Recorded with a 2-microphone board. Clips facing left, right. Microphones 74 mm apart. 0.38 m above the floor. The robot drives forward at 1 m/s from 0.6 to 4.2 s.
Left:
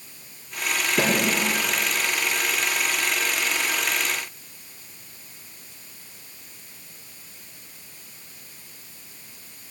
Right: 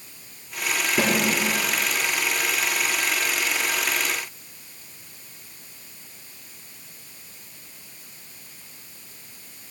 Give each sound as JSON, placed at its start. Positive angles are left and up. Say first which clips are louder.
{"t": 1.0, "sound": "a snare drum", "louder": "even", "side_deg": -20, "distance_m": 4.5}